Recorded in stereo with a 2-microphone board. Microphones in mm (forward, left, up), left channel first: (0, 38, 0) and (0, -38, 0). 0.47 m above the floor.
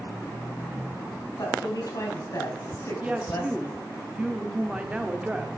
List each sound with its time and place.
1.4 s a woman speaking: 50° left (ahead or behind), 3 m; by 3.8 s 25° left (ahead or behind), 2.0 m
3.0 s a woman speaking: 15° right (ahead or behind), 0.8 m